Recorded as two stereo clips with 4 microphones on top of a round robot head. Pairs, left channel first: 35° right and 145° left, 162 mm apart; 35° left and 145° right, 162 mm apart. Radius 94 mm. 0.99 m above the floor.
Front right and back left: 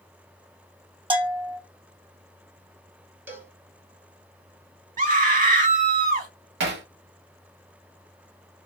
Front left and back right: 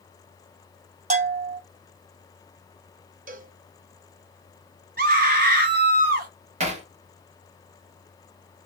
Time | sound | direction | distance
1.1 | a bell | 165° right | 1.0 m
3.3 | a cowbell | 140° right | 0.7 m
5.0 | a scream | straight behind | 1.3 m
6.6 | hammering | 165° left | 1.1 m